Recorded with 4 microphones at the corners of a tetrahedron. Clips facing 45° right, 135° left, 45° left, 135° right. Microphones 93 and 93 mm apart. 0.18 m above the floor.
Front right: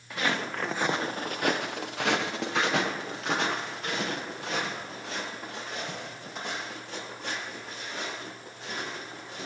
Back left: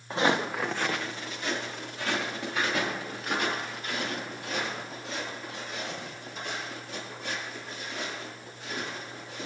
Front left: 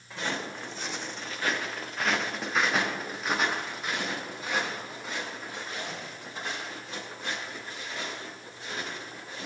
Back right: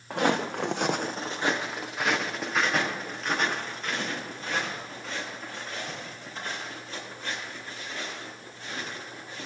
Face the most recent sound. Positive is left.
turn(degrees=-30)